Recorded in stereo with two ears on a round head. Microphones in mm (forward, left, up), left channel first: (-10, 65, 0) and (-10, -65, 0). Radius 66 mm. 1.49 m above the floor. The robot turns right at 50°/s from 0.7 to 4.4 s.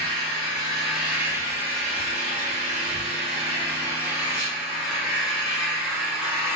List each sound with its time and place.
0.0 s an engine running: 175° left, 1.7 m; by 6.6 s straight ahead, 1.7 m